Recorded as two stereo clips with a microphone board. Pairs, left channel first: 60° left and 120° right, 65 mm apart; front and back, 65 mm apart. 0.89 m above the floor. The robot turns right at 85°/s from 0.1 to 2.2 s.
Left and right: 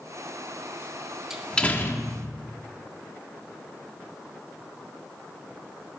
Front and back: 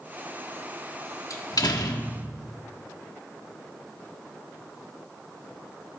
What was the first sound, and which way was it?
A door slam, 40° right.